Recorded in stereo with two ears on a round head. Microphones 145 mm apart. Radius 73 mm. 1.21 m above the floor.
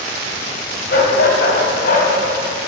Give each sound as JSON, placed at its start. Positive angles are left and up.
{"t": 0.9, "sound": "a dog barking", "side_deg": 65, "distance_m": 3.0}